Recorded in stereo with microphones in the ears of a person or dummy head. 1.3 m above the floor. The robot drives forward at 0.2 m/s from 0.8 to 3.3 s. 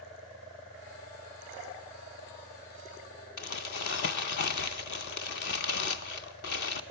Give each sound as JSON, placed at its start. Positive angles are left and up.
{"t": 3.4, "sound": "crumpling", "side_deg": 55, "distance_m": 0.6}